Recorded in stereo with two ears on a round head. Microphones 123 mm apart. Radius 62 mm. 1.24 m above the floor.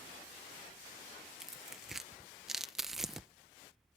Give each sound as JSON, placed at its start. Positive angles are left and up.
{"t": 1.4, "sound": "tearing paper", "side_deg": -5}